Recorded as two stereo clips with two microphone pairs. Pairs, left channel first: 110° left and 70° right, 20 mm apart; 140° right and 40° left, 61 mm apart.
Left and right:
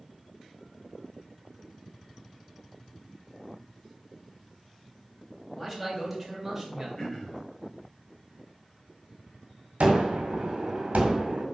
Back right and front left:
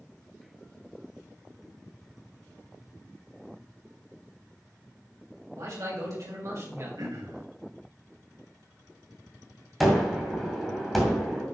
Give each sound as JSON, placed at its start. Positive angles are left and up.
{"t": 5.5, "sound": "a man speaking", "azimuth_deg": 20, "distance_m": 3.5}
{"t": 7.0, "sound": "throat clearing", "azimuth_deg": 30, "distance_m": 2.5}
{"t": 9.8, "sound": "a gunshot", "azimuth_deg": -50, "distance_m": 2.0}